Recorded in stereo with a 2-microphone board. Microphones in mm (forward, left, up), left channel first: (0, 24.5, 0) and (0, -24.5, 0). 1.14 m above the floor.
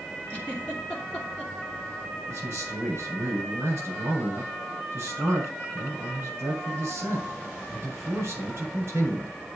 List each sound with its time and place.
0.3 s a giggle: 25° left (ahead or behind), 3 m
2.3 s a man speaking: 50° right (ahead or behind), 7.5 m